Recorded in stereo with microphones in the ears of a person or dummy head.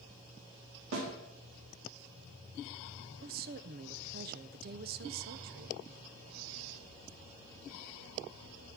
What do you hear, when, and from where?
0.9 s a snare drum: 70° right (ahead or behind), 3 m
3.2 s a woman speaking: 45° right (ahead or behind), 0.5 m